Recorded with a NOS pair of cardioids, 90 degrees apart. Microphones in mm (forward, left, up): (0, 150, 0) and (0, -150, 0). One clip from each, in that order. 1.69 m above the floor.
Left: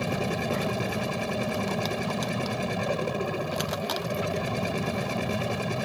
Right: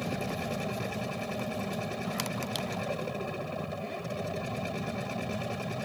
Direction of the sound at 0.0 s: 35° left.